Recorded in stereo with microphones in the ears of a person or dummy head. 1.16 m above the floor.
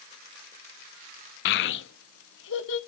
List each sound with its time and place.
1.4 s a child speaking: 65° left (ahead or behind), 0.6 m; by 2.8 s 80° left, 1.9 m